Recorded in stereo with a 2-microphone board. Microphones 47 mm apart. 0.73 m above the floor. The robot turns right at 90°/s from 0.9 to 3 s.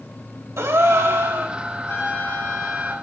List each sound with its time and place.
0.6 s a gasp: 75° right, 3.5 m; by 1.6 s 15° right, 3.5 m
1.9 s a trumpet: 100° left, 4.5 m; by 2.9 s 165° right, 4.5 m